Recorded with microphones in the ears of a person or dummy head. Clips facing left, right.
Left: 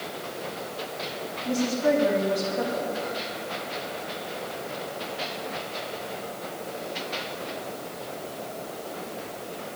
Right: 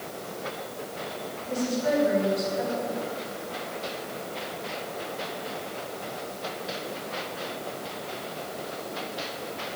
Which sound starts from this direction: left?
A woman speaking, at 1.4 s.